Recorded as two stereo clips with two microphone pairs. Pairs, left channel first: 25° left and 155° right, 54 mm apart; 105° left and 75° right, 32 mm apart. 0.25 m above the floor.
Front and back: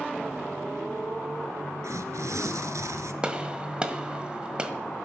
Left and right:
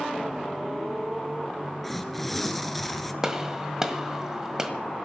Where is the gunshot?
120° right, 1.5 m.